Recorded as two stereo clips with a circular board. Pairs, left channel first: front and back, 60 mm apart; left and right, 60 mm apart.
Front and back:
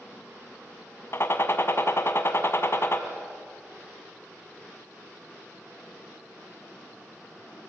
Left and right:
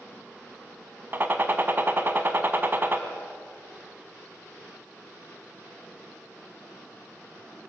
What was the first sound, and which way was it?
A gunshot, 40° right.